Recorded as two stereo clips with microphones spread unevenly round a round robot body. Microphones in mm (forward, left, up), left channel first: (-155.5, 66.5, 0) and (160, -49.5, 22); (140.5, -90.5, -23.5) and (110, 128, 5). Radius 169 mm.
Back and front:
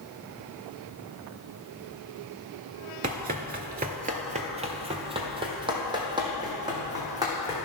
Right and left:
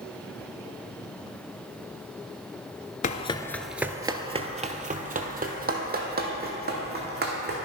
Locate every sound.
3.0 s running footsteps: 55° right, 0.5 m; by 7.7 s 60° left, 2.5 m